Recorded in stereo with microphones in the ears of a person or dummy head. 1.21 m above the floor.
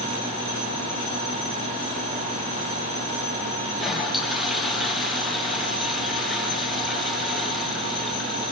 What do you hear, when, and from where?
3.7 s a toilet flushing: centre (ahead or behind), 5.5 m